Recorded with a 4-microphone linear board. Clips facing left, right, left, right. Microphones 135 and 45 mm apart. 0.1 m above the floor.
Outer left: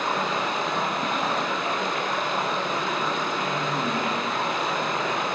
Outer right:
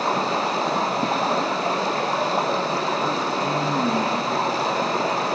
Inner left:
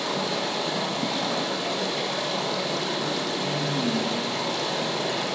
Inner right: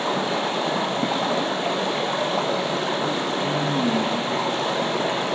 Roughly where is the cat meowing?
No cat meowing in this recording.